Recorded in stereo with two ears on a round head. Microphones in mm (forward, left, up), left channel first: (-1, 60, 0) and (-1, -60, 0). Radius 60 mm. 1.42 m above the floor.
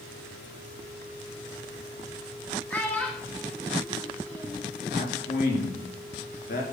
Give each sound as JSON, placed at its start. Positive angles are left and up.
{"t": 2.7, "sound": "a child speaking", "side_deg": 10, "distance_m": 1.4}
{"t": 4.9, "sound": "a man speaking", "side_deg": 70, "distance_m": 2.5}